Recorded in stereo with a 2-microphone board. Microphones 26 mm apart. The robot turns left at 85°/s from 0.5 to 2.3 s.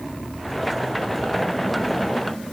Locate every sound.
Only background noise.